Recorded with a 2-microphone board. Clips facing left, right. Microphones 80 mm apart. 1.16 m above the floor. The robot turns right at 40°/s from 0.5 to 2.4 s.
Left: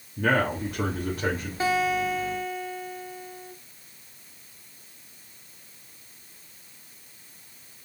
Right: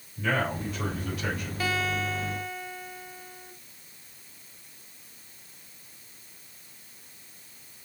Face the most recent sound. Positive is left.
turn(degrees=-175)